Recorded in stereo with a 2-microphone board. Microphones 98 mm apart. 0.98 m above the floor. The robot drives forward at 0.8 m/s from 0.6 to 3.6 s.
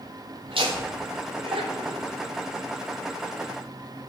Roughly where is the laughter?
Right.